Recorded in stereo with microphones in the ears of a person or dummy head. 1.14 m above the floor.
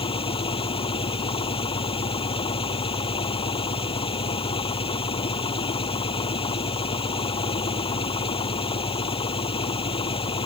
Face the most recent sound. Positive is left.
turn(degrees=35)  # may be behind; listen again after turning